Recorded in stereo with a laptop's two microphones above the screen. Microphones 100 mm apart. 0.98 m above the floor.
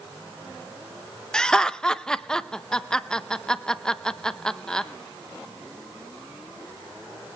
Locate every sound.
1.3 s laughter: 5° left (ahead or behind), 0.6 m